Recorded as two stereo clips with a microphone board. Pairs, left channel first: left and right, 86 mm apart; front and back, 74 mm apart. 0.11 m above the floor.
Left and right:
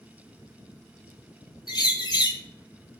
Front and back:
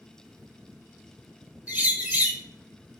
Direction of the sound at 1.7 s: 115° left.